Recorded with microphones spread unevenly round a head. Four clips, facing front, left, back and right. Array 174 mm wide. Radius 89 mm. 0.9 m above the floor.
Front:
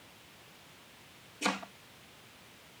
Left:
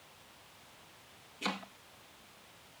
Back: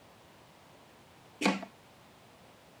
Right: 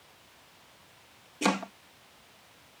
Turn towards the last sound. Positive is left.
turn(degrees=-115)